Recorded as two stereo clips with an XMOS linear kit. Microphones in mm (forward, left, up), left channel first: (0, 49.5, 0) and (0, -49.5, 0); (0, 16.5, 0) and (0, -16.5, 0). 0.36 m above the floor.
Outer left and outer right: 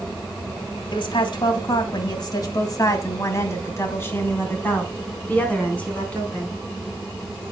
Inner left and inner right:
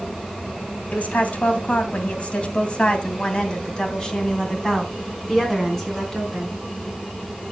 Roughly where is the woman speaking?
Left.